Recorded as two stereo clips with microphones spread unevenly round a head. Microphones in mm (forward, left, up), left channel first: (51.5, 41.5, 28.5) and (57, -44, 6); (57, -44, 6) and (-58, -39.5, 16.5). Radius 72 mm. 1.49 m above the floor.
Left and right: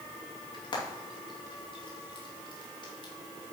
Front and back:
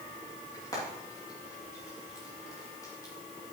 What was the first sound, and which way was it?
Frying, 65° left.